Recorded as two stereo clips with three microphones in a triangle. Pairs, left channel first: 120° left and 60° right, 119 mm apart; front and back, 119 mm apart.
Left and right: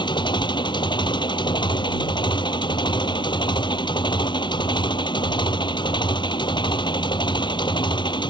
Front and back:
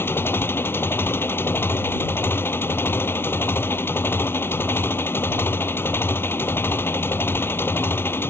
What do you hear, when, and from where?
0.0 s an engine running: 70° left